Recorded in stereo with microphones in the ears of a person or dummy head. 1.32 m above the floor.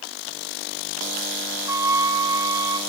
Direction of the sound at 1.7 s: 10° right (ahead or behind).